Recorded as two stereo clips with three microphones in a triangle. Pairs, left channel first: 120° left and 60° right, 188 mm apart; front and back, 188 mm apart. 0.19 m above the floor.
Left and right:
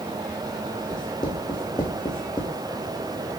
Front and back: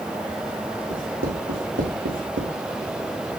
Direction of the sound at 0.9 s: 170° right.